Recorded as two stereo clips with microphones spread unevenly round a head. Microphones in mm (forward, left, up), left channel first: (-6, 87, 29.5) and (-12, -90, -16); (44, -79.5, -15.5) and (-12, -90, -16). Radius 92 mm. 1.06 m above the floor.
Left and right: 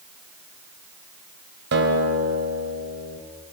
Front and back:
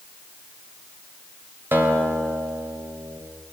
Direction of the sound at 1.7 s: 120° right.